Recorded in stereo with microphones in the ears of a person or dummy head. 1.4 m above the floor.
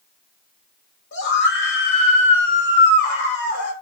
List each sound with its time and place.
1.1 s a scream: 65° left (ahead or behind), 6 m